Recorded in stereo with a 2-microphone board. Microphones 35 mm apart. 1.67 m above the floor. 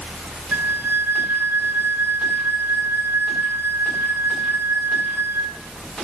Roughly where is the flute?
Right.